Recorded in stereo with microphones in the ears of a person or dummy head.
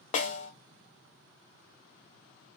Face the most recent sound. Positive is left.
turn(degrees=35)  # may be behind; listen again after turning